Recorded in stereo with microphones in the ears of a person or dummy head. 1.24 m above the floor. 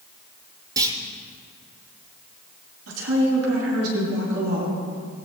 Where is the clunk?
20° right (ahead or behind), 1.8 m.